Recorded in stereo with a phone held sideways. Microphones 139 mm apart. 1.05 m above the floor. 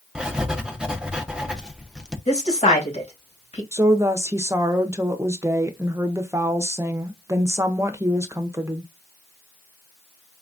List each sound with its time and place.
0.1 s writing: 5° right (ahead or behind), 0.6 m
2.3 s a woman speaking: 50° left (ahead or behind), 1.9 m
3.7 s a woman speaking: 20° right (ahead or behind), 0.6 m